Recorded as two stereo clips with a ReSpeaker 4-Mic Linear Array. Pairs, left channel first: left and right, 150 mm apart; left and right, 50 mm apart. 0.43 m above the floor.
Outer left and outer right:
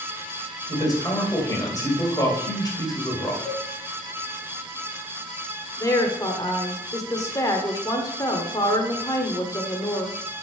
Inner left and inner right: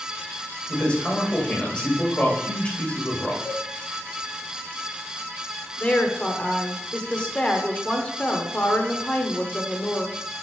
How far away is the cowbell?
About 2.5 m.